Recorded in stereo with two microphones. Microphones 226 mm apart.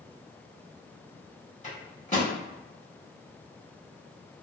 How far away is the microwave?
About 1.1 m.